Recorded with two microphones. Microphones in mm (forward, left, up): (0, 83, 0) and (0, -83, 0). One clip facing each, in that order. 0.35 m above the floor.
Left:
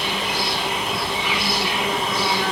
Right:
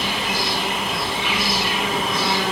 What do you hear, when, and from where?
0.0 s an insect: 70° right (ahead or behind), 3.5 m